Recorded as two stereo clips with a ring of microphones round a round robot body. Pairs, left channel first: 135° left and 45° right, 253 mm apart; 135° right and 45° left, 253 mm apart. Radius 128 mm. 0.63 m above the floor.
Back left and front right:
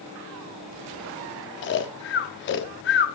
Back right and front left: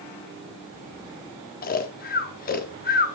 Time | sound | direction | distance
1.6 | snoring | 175° left | 0.7 m